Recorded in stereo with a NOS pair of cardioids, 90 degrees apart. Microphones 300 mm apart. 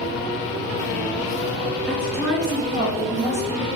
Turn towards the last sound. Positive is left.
turn(degrees=25)